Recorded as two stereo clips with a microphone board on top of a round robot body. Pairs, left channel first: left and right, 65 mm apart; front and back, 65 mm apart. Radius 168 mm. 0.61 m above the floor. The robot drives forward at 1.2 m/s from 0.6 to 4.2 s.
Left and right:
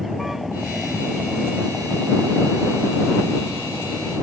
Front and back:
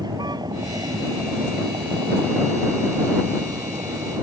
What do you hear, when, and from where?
0.0 s a vehicle: straight behind